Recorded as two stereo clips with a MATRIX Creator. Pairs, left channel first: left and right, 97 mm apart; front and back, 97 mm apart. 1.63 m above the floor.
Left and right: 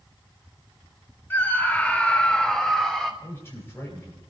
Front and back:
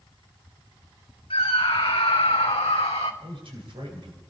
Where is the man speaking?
155° left, 9.5 m.